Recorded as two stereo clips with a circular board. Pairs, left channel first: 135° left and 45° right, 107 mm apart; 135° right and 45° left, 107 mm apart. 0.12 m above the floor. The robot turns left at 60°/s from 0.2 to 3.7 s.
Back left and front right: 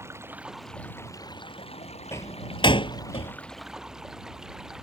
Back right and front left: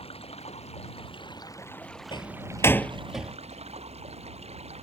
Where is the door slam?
165° right; by 3.3 s 120° left.